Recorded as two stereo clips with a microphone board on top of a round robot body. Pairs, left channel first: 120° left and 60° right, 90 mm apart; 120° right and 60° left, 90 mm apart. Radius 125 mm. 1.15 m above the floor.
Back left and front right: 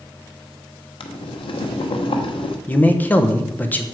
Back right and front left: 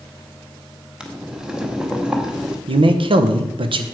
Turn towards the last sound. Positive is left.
turn(degrees=50)